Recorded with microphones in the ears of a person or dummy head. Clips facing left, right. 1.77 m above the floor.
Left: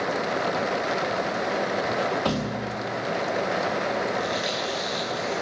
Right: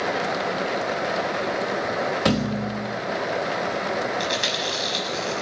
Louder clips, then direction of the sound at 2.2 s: Right 4 dB; 20° right (ahead or behind).